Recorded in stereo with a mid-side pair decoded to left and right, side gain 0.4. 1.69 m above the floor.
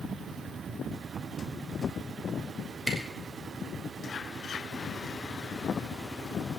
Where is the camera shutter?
10° right, 6 m.